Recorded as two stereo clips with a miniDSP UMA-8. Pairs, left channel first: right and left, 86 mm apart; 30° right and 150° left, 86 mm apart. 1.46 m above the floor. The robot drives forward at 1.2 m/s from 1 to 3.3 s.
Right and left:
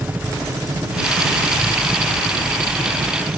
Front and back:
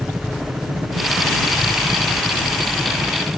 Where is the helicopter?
110° left; by 3.4 s 85° left.